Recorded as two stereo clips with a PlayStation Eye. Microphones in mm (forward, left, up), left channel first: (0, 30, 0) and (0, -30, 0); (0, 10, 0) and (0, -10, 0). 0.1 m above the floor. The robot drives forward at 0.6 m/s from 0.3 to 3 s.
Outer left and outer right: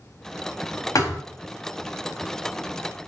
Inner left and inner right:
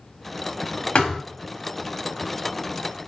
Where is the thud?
70° left (ahead or behind), 3 m.